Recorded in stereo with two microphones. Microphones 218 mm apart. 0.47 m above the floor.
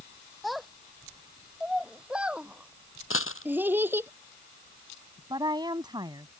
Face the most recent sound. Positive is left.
turn(degrees=-20)  # may be behind; listen again after turning